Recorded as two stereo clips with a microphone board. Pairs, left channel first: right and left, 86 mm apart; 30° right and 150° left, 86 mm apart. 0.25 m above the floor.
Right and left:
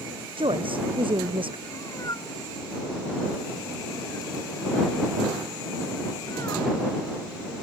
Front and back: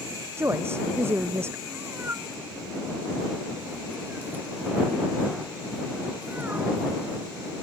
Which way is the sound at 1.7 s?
140° right.